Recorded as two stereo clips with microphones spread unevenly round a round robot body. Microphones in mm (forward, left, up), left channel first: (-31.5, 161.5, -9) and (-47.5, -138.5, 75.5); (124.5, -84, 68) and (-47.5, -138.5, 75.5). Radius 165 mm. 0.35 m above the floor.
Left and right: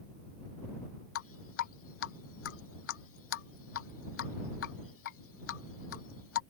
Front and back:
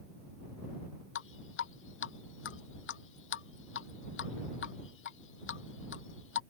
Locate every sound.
1.1 s dripping: 35° left